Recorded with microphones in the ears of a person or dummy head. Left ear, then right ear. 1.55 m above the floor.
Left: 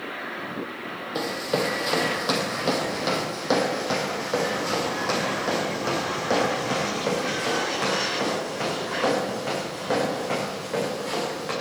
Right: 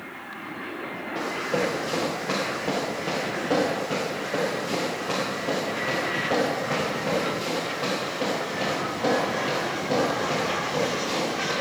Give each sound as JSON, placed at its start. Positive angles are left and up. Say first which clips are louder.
{"t": 1.1, "sound": "running footsteps", "louder": "even", "side_deg": 50, "distance_m": 3.0}